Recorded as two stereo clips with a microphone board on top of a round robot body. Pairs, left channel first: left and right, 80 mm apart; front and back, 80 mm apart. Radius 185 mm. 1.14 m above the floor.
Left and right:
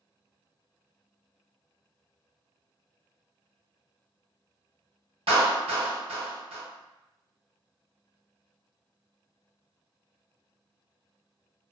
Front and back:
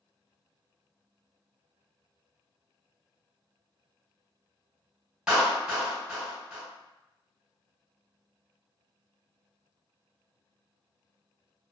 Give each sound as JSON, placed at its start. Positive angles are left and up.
{"t": 5.3, "sound": "a clap", "azimuth_deg": -100, "distance_m": 1.4}